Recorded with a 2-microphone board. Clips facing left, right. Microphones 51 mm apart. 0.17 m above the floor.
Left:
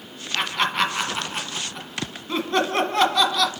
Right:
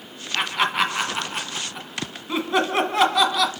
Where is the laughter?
5° right (ahead or behind), 1.1 m.